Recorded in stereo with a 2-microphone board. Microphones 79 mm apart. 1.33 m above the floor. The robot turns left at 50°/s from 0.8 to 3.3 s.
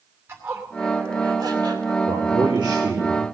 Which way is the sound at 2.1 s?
75° right.